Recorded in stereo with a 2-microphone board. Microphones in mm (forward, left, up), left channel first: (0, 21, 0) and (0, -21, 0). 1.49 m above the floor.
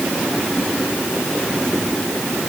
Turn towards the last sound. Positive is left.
No sound to turn to.